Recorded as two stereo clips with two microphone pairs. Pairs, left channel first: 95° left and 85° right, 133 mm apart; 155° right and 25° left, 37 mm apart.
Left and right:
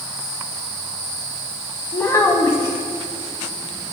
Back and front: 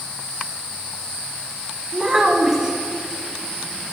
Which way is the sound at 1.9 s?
75° left.